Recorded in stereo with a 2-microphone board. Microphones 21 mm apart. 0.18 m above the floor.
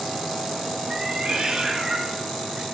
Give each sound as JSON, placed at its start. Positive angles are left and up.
{"t": 0.9, "sound": "a cat meowing", "side_deg": -30, "distance_m": 1.5}